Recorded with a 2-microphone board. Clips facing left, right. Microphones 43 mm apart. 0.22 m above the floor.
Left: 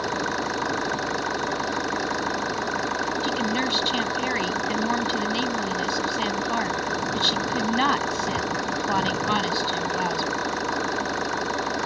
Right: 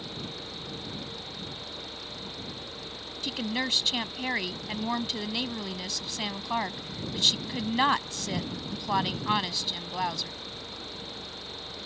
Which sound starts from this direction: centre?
A woman speaking, at 3.2 s.